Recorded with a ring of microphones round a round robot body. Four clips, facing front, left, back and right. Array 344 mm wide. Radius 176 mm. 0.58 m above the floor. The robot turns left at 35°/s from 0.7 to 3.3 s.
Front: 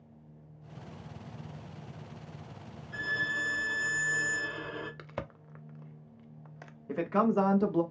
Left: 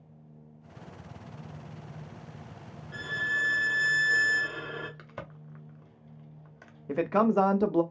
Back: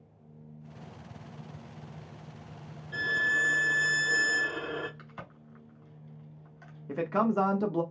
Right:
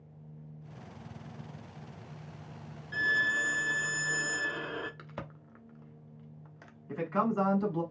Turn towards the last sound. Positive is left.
turn(degrees=85)